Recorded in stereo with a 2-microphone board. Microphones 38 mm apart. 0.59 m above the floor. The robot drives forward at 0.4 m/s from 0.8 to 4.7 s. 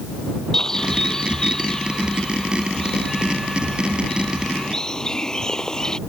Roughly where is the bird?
Centre.